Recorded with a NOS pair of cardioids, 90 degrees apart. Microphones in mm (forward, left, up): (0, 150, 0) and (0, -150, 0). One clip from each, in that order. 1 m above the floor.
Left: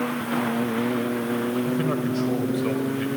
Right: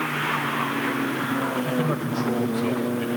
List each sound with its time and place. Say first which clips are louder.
1.6 s a man speaking: even; straight ahead, 3.5 m